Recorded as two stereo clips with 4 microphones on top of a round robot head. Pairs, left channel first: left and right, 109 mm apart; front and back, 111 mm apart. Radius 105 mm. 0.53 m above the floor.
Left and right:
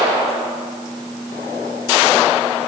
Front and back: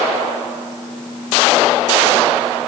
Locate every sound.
Only background noise.